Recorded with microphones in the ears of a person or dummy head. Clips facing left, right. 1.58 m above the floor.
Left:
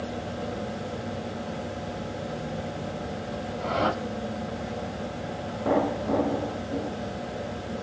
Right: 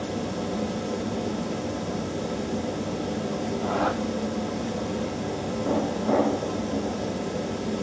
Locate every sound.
0.0 s a fan: 85° right, 3.5 m
3.6 s a whoosh: 40° left (ahead or behind), 5.5 m